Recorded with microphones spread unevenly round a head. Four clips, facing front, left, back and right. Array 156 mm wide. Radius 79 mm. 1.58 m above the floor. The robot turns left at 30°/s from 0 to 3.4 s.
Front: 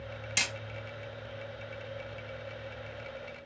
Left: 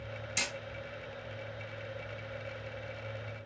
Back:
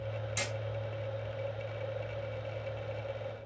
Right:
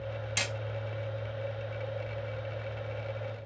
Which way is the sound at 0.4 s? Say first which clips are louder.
Right 2 dB, front 3 dB; 35° right.